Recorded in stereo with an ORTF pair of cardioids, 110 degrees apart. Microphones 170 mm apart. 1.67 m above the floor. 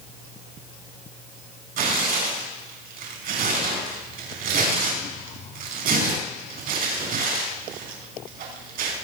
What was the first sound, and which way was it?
Tearing paper, 60° right.